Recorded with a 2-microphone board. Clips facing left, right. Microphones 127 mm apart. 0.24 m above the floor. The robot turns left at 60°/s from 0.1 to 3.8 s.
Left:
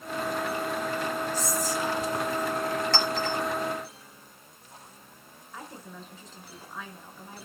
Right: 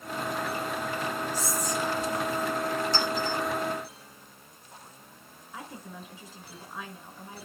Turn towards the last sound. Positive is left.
turn(degrees=-10)  # may be behind; listen again after turning